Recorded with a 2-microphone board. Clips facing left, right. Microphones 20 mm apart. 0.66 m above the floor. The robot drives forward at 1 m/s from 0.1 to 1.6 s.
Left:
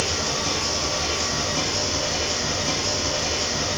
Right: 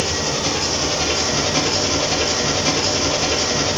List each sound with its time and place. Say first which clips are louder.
0.0 s an engine running: right 3 dB; 30° right (ahead or behind), 1.7 m; by 3.8 s 60° right (ahead or behind), 1.0 m